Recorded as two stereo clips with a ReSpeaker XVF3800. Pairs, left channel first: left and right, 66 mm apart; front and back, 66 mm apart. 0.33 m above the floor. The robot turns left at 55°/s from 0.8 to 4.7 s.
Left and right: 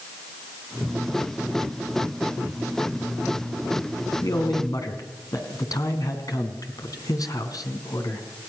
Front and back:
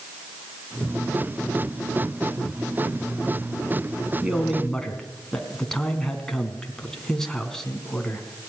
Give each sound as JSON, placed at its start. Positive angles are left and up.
{"t": 4.2, "sound": "a man speaking", "azimuth_deg": 110, "distance_m": 3.0}